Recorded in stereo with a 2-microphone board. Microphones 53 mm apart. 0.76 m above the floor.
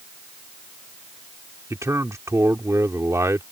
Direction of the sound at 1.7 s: 70° right (ahead or behind).